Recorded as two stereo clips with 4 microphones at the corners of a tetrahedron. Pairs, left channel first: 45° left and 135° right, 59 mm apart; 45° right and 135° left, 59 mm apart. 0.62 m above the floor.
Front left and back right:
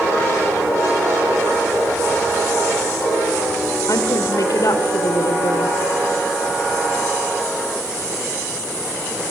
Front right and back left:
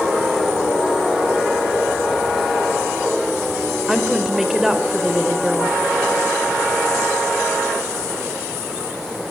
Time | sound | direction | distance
3.9 | a woman speaking | 50° left | 2.5 m